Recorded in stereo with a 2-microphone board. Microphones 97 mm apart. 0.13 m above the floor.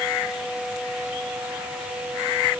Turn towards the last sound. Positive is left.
No sound to turn to.